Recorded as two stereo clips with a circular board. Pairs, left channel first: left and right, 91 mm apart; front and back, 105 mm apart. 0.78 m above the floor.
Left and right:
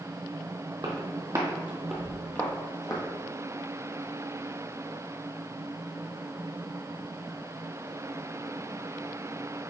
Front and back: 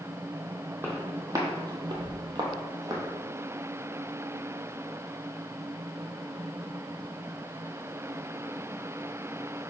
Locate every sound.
0.8 s footsteps: 115° right, 1.4 m; by 3.0 s 125° left, 1.5 m